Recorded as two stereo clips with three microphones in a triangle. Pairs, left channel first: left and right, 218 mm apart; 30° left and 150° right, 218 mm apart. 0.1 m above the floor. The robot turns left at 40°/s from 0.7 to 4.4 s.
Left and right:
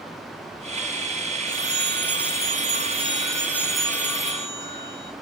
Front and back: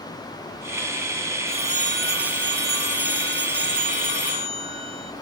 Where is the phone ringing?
90° right, 1.4 m; by 5.1 s 155° left, 1.4 m.